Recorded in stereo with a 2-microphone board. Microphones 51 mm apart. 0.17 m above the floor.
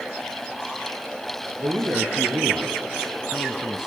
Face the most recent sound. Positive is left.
turn(degrees=-10)  # may be behind; listen again after turning